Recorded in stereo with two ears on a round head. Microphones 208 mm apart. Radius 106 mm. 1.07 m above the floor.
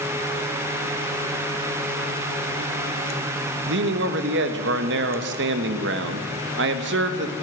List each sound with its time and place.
3.7 s a man speaking: 50° right (ahead or behind), 1.3 m